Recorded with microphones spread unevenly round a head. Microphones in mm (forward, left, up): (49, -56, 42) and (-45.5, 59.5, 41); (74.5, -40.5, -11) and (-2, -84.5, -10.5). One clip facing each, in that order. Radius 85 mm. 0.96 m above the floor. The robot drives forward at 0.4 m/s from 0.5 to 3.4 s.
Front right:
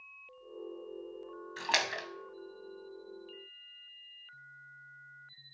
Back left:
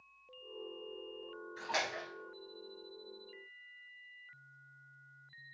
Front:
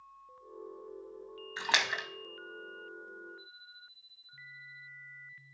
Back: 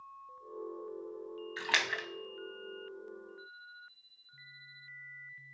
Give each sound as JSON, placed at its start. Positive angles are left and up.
{"t": 1.6, "sound": "a splash", "azimuth_deg": -35, "distance_m": 0.9}